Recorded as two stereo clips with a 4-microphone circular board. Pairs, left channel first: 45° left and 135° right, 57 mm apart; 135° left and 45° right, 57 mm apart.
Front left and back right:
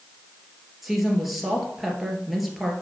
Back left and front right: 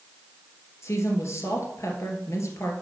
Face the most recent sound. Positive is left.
turn(degrees=140)